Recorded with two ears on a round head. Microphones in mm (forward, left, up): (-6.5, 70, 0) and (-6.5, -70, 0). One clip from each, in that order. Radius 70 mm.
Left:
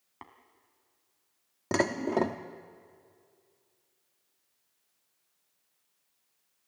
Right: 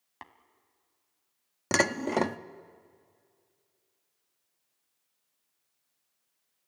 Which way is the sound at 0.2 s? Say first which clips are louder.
Right 2 dB; 60° right (ahead or behind).